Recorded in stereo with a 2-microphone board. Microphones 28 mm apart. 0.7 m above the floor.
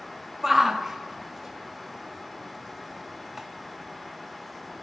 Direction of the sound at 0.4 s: 5° right (ahead or behind).